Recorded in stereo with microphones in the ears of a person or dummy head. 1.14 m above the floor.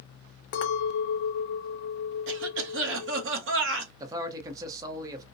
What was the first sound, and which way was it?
A clink, 55° left (ahead or behind).